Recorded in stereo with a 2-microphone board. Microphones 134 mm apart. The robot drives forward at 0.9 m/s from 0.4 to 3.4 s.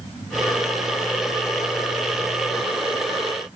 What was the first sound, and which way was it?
Only background noise.